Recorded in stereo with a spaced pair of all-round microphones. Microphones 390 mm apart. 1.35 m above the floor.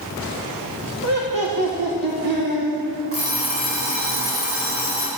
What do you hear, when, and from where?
1.0 s laughter: 45° right (ahead or behind), 1.2 m; by 2.7 s 70° right (ahead or behind), 1.7 m
3.1 s an alarm clock: 35° right (ahead or behind), 3 m